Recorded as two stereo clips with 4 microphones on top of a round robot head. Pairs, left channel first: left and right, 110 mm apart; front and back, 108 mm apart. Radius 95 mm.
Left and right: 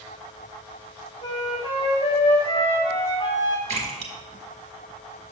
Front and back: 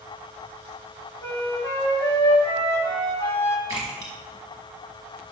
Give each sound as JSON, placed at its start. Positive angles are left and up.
{"t": 1.2, "sound": "a flute", "azimuth_deg": 60, "distance_m": 2.5}
{"t": 3.7, "sound": "a splash", "azimuth_deg": -115, "distance_m": 1.9}